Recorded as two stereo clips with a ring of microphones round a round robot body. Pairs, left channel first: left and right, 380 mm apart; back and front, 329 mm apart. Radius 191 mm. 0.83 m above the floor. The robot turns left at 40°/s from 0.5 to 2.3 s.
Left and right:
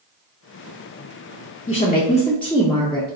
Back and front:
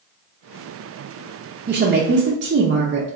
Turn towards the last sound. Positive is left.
turn(degrees=10)